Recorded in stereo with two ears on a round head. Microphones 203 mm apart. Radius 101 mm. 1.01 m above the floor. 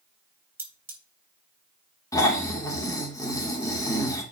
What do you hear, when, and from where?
0.6 s cutlery clinking: 10° right (ahead or behind), 3.5 m
2.1 s snoring: 15° left (ahead or behind), 2 m